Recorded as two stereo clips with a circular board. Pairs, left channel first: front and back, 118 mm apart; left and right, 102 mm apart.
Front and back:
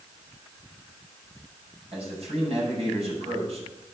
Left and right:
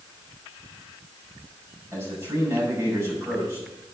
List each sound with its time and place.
1.9 s a man speaking: 150° right, 5.5 m